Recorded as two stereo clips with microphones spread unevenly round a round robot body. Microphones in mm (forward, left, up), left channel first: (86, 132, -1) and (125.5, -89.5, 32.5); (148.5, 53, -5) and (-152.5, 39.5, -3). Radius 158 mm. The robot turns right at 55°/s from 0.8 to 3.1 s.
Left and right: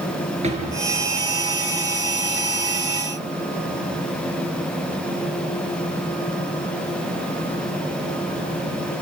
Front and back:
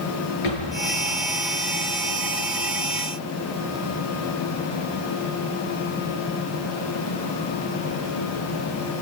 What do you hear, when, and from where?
0.4 s a drawer: 20° right, 6.5 m